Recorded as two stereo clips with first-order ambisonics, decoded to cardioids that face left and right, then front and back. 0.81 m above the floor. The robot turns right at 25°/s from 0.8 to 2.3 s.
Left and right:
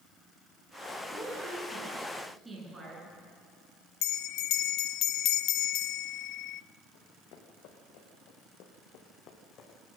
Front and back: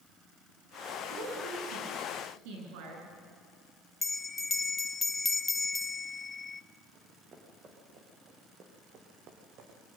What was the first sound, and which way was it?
A woman speaking, 160° left.